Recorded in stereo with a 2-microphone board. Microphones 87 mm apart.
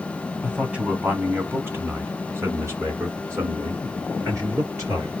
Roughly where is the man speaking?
Centre.